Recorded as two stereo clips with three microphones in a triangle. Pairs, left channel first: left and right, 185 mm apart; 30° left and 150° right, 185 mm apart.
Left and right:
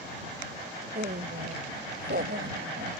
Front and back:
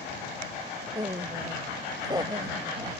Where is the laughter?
90° right; by 3.0 s 85° right.